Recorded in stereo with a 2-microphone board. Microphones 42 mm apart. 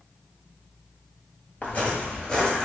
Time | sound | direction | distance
1.6 | footsteps | 35° left (ahead or behind) | 1.4 m